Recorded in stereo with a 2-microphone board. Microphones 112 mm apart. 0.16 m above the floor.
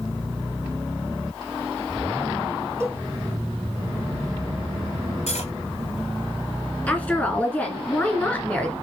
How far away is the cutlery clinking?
About 3.5 m.